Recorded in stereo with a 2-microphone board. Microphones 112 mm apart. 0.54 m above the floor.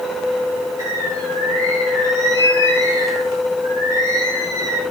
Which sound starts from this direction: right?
A bird, at 0.8 s.